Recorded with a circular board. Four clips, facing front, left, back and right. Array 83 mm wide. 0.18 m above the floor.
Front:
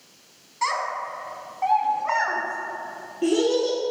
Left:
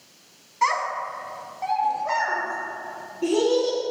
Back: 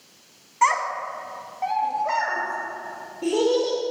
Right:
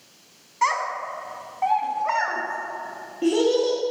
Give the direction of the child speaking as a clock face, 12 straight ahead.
6 o'clock.